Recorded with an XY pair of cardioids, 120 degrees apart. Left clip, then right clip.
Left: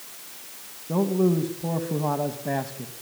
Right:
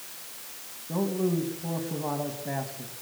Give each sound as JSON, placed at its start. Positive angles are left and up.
{"t": 0.9, "sound": "a man speaking", "azimuth_deg": 35, "distance_m": 2.5}